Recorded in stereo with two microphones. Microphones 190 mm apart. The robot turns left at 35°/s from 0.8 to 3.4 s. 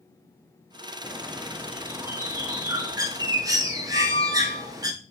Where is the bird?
5° right (ahead or behind), 0.6 m; by 4.9 s 20° right (ahead or behind), 0.6 m.